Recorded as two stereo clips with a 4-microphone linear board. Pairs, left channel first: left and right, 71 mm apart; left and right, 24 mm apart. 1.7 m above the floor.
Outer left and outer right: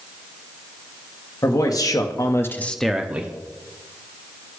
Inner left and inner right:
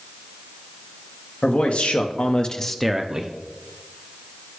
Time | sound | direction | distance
1.4 | a man speaking | 60° left (ahead or behind) | 1.2 m